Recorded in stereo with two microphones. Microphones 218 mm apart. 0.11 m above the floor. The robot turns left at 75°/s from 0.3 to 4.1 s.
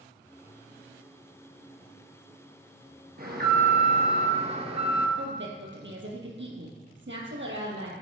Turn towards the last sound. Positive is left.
turn(degrees=-65)  # may be behind; listen again after turning